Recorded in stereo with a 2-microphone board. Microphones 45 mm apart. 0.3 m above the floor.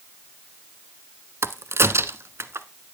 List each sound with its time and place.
1.4 s a crack: 75° right (ahead or behind), 0.6 m